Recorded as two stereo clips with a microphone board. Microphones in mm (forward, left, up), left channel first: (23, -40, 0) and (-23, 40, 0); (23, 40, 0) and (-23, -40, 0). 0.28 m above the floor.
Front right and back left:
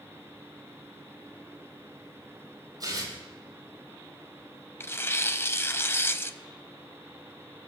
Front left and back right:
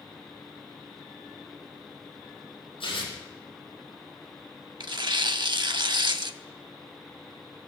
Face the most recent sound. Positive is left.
turn(degrees=-115)